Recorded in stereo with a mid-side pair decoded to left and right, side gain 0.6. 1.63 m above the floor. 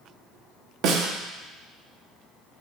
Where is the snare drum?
65° right, 1.4 m.